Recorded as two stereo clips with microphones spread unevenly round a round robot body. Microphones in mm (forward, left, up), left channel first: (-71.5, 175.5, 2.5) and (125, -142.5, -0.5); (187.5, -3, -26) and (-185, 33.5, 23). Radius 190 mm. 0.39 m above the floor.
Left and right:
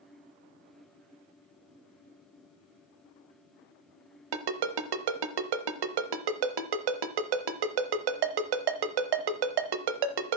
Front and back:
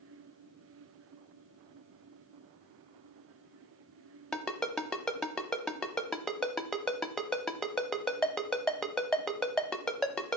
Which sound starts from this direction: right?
A ringtone, at 4.3 s.